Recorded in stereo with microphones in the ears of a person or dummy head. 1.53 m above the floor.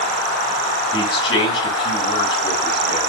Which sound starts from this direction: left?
A man speaking, at 0.9 s.